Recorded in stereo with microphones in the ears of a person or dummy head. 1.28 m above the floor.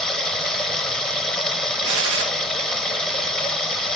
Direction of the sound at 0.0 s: 5° left (ahead or behind).